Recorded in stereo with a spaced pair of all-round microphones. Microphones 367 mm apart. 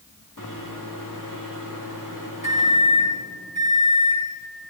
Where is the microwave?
55° left (ahead or behind), 2.5 m.